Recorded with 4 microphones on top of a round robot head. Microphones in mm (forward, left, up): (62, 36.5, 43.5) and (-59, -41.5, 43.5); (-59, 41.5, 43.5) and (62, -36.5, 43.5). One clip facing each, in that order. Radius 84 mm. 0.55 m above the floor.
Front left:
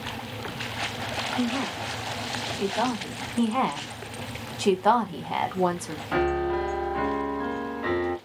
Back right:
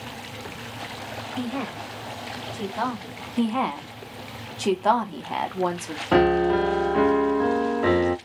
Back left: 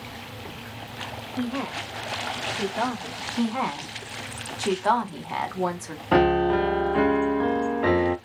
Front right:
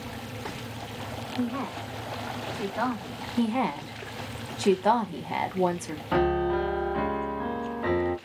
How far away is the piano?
About 0.5 m.